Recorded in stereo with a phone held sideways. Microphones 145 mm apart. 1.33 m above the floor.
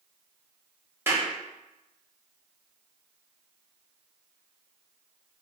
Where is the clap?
15° right (ahead or behind), 2 m.